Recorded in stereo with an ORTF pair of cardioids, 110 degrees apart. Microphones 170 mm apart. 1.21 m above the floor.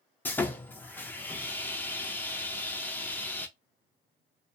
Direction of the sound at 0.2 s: 10° left.